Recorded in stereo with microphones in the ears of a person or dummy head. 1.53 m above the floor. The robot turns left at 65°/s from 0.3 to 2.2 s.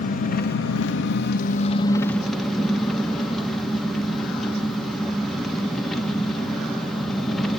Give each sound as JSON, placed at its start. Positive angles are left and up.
{"t": 0.0, "sound": "an engine running", "azimuth_deg": 125, "distance_m": 1.3}